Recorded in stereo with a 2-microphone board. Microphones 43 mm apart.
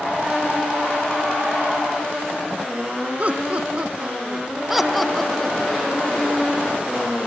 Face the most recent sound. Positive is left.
turn(degrees=35)  # may be behind; listen again after turning